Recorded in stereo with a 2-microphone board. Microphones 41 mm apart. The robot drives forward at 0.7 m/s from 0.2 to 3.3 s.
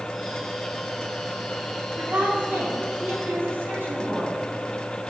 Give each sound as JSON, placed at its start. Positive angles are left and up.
{"t": 2.0, "sound": "a woman speaking", "side_deg": -70, "distance_m": 3.0}